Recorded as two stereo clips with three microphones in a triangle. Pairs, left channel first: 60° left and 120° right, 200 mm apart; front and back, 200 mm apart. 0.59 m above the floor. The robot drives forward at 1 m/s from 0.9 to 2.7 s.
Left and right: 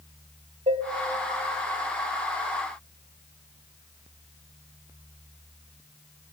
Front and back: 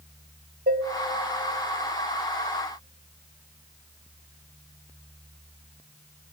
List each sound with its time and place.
0.7 s dishes clattering: 165° right, 0.9 m